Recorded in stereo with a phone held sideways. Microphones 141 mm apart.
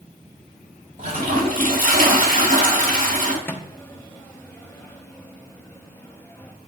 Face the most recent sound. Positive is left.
turn(degrees=15)  # may be behind; listen again after turning